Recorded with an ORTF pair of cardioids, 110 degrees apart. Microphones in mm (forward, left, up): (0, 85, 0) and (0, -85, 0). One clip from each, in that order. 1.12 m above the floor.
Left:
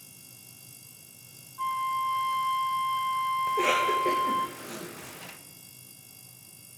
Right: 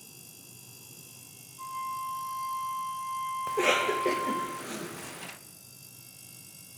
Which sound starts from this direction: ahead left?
A flute, at 1.6 s.